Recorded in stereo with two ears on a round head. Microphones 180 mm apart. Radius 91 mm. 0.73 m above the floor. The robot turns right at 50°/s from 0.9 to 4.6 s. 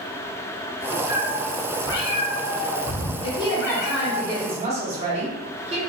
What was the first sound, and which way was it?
A cat meowing, 15° right.